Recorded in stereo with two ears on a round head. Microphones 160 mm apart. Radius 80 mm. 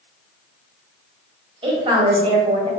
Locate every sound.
1.6 s a woman speaking: 30° right (ahead or behind), 1.7 m